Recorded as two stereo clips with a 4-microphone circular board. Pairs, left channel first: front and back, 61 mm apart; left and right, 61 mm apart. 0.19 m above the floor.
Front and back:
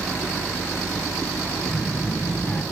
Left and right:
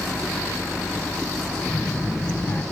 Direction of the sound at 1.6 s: 50° left.